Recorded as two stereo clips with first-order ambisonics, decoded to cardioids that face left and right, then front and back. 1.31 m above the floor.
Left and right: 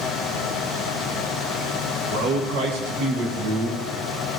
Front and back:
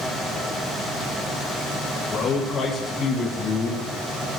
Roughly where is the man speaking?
Right.